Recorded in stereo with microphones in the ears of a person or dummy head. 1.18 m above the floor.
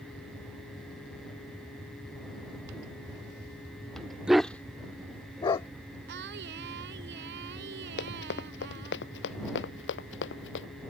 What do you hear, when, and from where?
4.3 s a dog barking: 5° right (ahead or behind); by 5.7 s 25° left (ahead or behind)
6.1 s singing: 75° right (ahead or behind)
8.0 s running footsteps: 65° left (ahead or behind); by 10.7 s 75° left (ahead or behind)